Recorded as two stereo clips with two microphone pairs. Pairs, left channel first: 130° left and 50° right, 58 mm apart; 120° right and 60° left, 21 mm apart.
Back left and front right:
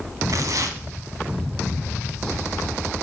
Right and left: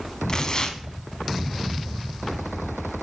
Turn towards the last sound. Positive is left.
turn(degrees=-70)